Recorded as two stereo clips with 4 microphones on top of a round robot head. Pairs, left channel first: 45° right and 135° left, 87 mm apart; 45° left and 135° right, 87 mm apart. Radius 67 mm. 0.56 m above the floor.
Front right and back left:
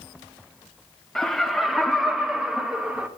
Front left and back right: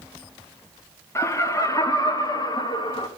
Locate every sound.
1.1 s laughter: 35° left, 1.3 m; by 3.1 s 60° left, 2.0 m